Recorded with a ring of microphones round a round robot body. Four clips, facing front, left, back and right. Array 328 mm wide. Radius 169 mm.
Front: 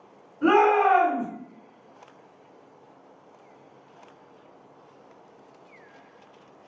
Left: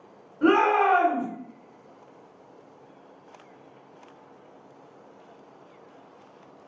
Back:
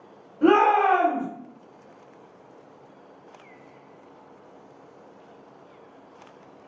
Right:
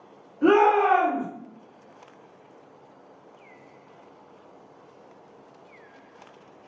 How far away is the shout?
About 1.3 m.